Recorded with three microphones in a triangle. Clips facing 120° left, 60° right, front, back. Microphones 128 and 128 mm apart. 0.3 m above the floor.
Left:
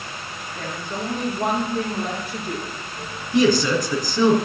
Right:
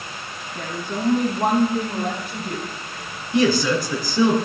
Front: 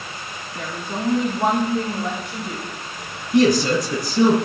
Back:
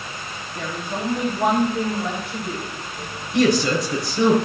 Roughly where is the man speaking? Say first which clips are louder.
Left 1 dB, front 2 dB; ahead.